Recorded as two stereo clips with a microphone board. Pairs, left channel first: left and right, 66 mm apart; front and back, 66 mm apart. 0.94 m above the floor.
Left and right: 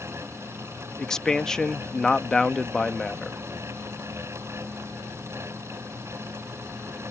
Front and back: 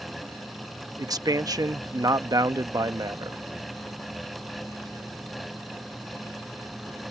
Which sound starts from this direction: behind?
A man speaking, at 1.0 s.